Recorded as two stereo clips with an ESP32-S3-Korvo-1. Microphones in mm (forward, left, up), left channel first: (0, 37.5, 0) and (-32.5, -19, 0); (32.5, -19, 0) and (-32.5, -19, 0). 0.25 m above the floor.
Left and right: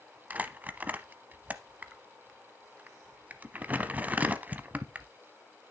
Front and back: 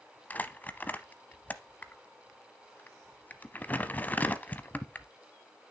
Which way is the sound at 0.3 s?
60° right.